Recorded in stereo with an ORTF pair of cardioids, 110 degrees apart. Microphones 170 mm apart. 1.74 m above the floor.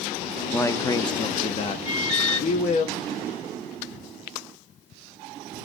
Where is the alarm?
35° left, 1.9 m.